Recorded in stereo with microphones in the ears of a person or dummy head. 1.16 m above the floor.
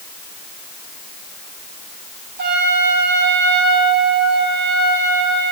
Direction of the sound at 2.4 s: 55° right (ahead or behind).